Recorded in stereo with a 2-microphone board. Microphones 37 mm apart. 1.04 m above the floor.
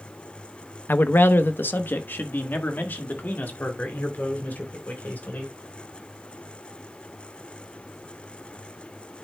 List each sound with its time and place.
0.9 s a man speaking: 70° left (ahead or behind), 0.7 m; by 5.6 s 60° left (ahead or behind), 3.5 m